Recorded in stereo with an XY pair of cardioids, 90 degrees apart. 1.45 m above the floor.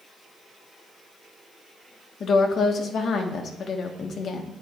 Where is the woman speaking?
65° left, 1.2 m.